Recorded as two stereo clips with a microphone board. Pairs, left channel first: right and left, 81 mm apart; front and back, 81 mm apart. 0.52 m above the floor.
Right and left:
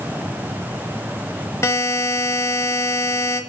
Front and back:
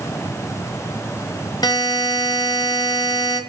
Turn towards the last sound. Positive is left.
turn(degrees=-35)